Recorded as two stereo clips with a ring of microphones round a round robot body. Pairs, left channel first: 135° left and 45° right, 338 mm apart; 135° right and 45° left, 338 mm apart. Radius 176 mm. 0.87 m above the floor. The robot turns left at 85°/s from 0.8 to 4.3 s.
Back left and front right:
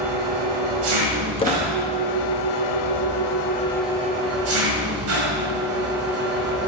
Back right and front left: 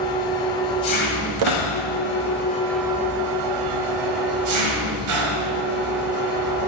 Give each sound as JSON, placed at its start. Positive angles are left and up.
{"t": 0.0, "sound": "an engine running", "azimuth_deg": -55, "distance_m": 1.7}
{"t": 1.4, "sound": "a squeak", "azimuth_deg": 65, "distance_m": 0.9}